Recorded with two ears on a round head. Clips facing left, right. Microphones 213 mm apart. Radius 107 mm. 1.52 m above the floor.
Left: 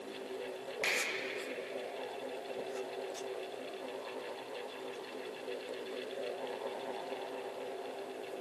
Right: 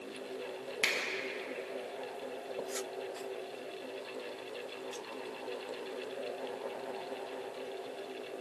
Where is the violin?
No violin in this recording.